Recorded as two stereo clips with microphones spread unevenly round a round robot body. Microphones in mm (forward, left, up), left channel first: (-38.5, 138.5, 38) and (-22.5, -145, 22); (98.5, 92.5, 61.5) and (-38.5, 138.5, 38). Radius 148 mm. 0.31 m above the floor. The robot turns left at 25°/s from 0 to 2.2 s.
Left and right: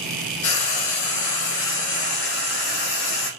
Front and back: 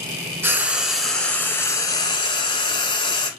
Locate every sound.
0.4 s frying: 85° left, 1.0 m; by 3.3 s 40° left, 1.0 m